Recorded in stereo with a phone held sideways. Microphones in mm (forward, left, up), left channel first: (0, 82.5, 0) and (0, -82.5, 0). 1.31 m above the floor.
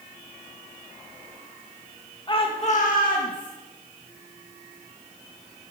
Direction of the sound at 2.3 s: 30° left (ahead or behind).